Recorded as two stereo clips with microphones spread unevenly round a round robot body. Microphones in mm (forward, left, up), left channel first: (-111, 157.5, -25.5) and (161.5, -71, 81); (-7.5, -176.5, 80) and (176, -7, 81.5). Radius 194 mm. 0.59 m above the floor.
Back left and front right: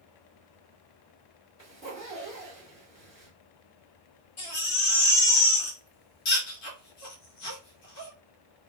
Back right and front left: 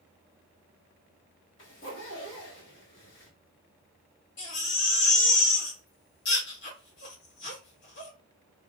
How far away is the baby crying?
About 1.2 m.